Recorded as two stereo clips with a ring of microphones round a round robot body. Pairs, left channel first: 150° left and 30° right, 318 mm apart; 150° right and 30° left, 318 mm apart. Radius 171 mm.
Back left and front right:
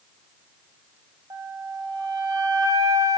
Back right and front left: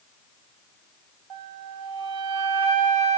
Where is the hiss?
I don't hear a hiss.